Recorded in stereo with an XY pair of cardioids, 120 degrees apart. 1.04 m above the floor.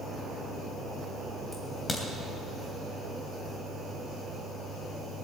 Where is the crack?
20° left, 3 m.